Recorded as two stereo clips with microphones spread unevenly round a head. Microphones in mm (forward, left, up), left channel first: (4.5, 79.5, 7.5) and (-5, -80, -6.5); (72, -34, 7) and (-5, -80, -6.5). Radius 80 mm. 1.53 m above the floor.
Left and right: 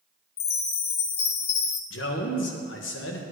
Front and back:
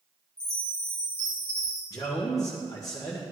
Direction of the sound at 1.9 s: 100° left.